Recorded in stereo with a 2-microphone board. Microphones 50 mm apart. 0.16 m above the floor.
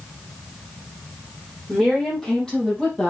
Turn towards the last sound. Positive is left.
turn(degrees=15)  # may be behind; listen again after turning